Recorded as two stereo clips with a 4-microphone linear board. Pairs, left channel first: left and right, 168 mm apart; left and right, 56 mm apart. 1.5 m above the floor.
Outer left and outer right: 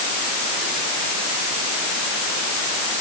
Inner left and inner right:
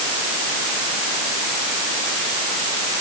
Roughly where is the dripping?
No dripping in this recording.